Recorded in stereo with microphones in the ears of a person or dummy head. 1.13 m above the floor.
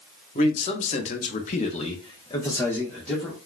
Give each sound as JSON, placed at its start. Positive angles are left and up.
{"t": 0.3, "sound": "a man speaking", "side_deg": 30, "distance_m": 1.0}